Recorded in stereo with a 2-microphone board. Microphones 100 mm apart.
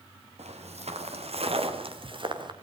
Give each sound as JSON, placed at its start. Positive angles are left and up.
{"t": 0.4, "sound": "footsteps", "side_deg": -90, "distance_m": 4.0}